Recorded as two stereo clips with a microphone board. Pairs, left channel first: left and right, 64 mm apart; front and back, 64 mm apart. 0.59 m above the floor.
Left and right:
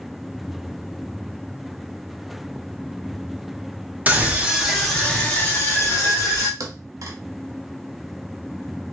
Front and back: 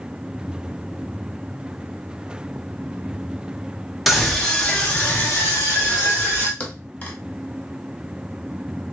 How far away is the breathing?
No breathing in this recording.